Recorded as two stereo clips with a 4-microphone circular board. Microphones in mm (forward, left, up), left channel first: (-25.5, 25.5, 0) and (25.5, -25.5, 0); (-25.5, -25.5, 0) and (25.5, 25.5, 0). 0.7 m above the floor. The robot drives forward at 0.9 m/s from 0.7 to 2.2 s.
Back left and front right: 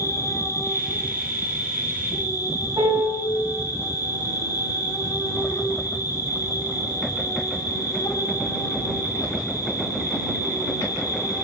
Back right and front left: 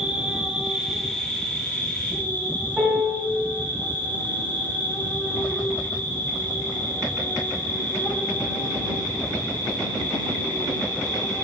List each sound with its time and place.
0.0 s an insect: 120° left, 0.9 m; by 11.4 s 160° left, 1.9 m
2.8 s a piano: 25° right, 5 m